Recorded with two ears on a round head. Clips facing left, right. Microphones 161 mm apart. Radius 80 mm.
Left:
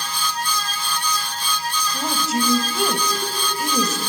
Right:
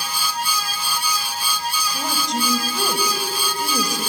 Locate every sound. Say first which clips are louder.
1.9 s a woman speaking: left 3 dB; 5° left (ahead or behind), 2.5 m